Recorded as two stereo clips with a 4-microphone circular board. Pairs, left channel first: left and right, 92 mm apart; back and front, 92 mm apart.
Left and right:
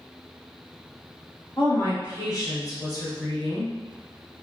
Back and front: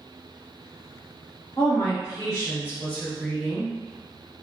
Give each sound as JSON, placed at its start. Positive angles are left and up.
{"t": 1.6, "sound": "a woman speaking", "azimuth_deg": 145, "distance_m": 1.1}